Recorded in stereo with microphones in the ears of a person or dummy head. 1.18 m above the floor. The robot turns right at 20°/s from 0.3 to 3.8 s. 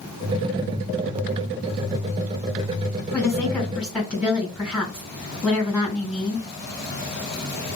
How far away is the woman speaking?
About 4.5 m.